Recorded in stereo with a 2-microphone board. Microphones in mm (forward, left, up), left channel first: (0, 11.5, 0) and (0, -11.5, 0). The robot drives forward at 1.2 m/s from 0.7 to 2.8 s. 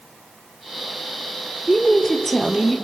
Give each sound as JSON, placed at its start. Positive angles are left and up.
{"t": 1.7, "sound": "a woman speaking", "side_deg": 20, "distance_m": 1.8}